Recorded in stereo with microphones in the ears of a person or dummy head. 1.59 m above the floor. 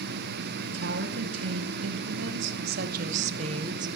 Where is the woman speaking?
75° right (ahead or behind), 1.8 m; by 3.9 s 25° right (ahead or behind), 1.1 m.